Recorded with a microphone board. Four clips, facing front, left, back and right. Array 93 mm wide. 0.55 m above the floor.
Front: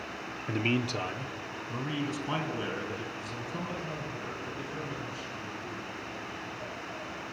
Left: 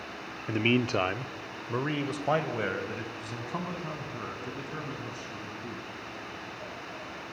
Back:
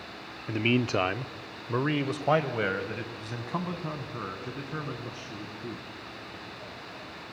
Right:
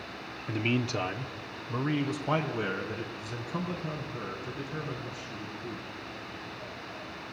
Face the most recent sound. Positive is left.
turn(degrees=160)